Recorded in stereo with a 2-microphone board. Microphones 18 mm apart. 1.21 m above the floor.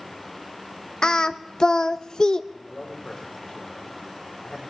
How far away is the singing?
About 0.6 m.